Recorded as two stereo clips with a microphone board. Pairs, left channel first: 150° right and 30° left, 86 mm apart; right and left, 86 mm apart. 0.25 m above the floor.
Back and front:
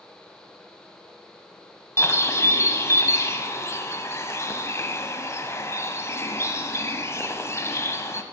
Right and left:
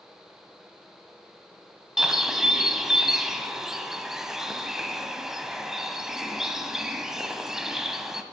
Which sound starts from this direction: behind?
A bird, at 2.0 s.